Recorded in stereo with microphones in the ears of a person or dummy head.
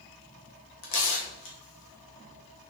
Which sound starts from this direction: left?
Tearing paper, at 0.8 s.